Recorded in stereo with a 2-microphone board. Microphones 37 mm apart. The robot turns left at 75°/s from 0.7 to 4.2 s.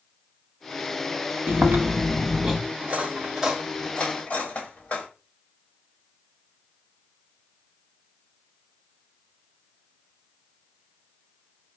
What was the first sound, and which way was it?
Chewing, 90° right.